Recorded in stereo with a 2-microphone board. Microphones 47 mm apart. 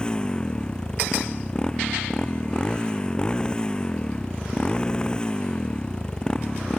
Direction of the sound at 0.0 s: 20° left (ahead or behind).